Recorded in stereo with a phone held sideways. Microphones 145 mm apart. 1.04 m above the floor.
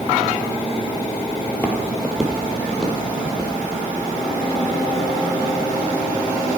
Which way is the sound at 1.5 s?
15° left (ahead or behind).